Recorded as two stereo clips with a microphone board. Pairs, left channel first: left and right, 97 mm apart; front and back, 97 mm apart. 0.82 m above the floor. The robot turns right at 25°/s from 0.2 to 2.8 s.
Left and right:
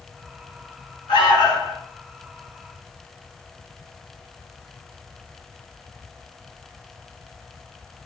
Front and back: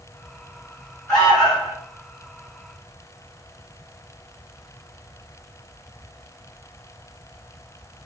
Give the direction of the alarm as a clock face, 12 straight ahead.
9 o'clock.